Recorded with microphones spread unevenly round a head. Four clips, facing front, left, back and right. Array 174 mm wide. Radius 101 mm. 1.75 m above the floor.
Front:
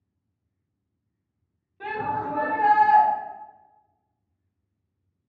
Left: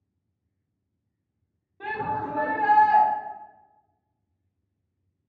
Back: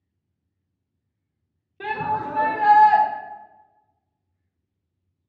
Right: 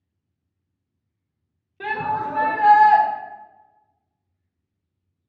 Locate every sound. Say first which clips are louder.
1.8 s a shout: right 5 dB, back 3 dB; 150° right, 0.6 m